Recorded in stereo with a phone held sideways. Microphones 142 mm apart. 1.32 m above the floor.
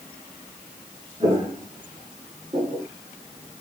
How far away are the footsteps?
About 1.6 m.